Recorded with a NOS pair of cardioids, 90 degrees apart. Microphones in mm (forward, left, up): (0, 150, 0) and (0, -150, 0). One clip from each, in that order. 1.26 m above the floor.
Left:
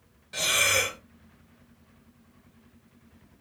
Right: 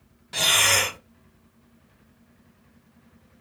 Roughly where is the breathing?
Ahead right.